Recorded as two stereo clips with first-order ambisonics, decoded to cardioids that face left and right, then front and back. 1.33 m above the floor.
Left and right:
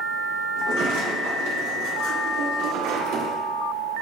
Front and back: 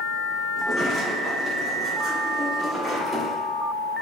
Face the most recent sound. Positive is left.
turn(degrees=-90)